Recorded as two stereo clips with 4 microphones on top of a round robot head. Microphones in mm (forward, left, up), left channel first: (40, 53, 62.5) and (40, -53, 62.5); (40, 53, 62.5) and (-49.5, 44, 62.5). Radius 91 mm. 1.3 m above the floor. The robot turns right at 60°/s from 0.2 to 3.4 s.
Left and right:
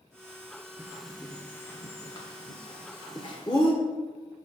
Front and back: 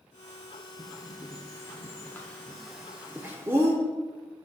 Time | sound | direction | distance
0.8 | a bird | 20° right | 1.0 m